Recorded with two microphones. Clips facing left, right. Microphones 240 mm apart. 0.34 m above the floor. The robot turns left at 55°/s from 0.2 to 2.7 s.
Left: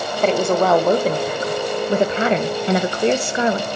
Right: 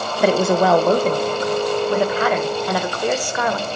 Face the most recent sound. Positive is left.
turn(degrees=25)  # may be behind; listen again after turning